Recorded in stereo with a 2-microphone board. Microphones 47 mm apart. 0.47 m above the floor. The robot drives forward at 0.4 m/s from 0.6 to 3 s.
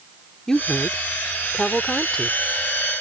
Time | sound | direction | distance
0.5 | a woman speaking | 15° left (ahead or behind) | ?